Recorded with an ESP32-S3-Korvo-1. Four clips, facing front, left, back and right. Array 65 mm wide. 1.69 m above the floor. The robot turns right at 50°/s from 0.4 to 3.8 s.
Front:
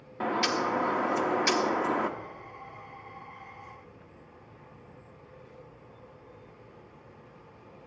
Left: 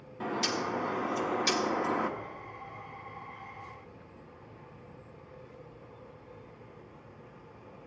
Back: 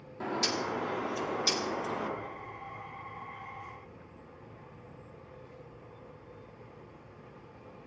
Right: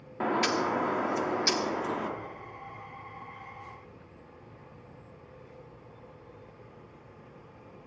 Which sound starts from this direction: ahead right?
A bird, at 0.2 s.